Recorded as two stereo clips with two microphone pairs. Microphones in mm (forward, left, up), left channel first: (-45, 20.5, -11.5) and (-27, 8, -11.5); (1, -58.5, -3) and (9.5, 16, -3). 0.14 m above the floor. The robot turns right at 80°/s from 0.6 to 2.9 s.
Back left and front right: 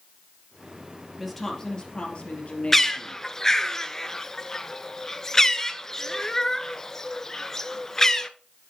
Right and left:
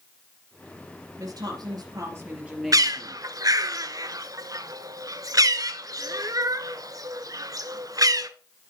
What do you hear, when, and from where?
1.2 s a woman speaking: 50° left, 3 m; by 3.2 s 170° right, 3 m
2.7 s a bird: 70° left, 0.6 m; by 8.3 s 85° left, 0.6 m